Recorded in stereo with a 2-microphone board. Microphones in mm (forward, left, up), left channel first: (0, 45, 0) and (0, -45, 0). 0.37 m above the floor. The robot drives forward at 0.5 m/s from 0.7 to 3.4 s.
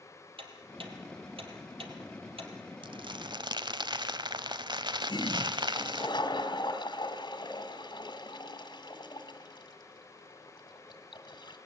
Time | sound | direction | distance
0.4 | ticking | 75° right (ahead or behind) | 3.5 m
2.8 | crumpling | 65° right (ahead or behind) | 0.9 m
5.1 | a toilet flushing | 55° left (ahead or behind) | 2 m